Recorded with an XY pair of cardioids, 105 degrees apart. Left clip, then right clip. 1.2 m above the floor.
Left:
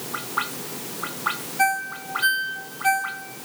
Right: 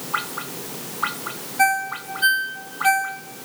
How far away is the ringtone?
About 1.1 m.